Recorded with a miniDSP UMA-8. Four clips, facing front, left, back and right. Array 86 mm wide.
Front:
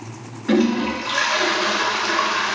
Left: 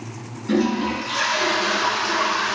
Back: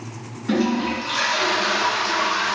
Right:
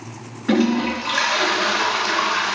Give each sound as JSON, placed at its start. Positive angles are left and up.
{"t": 0.5, "sound": "a toilet flushing", "azimuth_deg": -60, "distance_m": 0.6}